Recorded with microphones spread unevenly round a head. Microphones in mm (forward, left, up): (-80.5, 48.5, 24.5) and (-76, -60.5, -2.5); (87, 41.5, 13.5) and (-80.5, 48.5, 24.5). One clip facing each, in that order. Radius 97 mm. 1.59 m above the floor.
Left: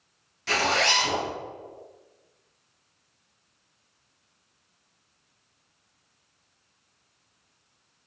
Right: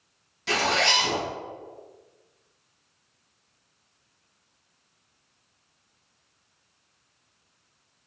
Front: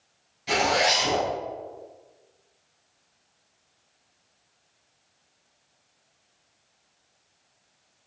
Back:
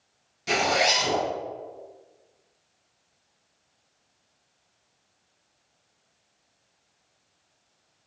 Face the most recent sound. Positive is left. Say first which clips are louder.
# even, front 1 dB
turn(degrees=-165)